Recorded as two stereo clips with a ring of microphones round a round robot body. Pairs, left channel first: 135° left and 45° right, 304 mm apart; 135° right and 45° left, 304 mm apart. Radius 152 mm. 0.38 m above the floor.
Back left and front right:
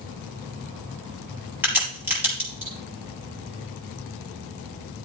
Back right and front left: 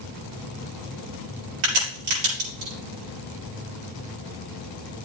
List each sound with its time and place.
1.6 s a crack: 40° left, 6.5 m